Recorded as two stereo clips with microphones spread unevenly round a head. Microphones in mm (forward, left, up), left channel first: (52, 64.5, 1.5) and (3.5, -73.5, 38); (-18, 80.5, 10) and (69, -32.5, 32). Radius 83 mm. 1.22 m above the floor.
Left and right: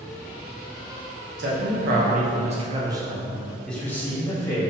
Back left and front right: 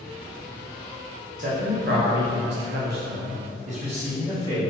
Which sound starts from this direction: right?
A man speaking, at 1.4 s.